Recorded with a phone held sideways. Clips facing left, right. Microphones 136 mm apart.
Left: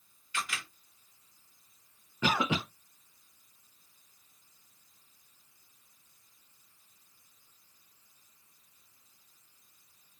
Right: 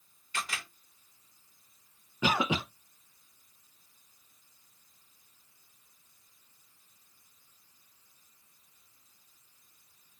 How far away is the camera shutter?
About 1.7 m.